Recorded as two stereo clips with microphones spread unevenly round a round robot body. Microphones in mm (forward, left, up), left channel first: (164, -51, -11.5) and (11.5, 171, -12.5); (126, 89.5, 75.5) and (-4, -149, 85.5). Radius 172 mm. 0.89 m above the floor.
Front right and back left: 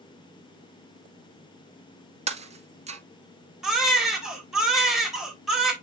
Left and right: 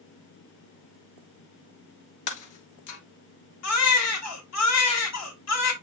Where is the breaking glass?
60° left, 1.4 m.